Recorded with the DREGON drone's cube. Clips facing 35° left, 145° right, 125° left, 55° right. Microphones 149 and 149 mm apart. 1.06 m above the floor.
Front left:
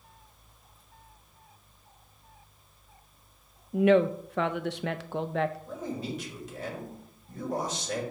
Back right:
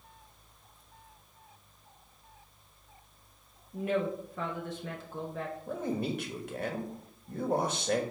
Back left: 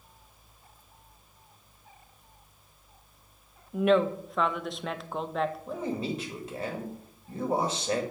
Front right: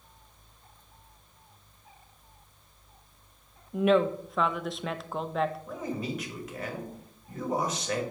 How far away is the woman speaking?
About 0.5 m.